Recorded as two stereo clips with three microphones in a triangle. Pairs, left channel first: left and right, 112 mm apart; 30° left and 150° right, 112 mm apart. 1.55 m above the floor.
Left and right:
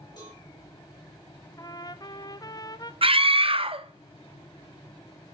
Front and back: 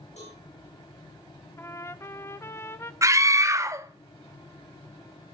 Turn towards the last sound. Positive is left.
turn(degrees=-90)